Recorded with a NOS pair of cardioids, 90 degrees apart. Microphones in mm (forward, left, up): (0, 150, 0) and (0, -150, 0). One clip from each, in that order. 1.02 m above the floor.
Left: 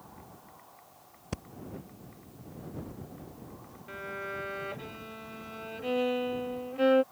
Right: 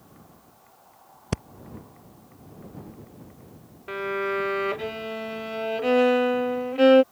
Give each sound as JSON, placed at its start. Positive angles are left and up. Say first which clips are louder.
{"t": 1.3, "sound": "breathing", "louder": "right 9 dB", "azimuth_deg": -40}
{"t": 3.9, "sound": "a violin", "louder": "right 11 dB", "azimuth_deg": -55}